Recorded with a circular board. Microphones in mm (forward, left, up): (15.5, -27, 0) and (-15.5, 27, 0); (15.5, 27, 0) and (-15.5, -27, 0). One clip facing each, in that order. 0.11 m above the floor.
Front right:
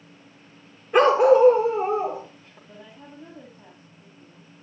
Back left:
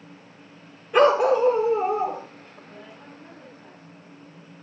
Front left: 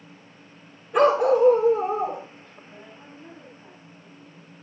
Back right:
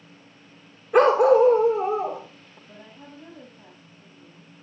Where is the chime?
No chime in this recording.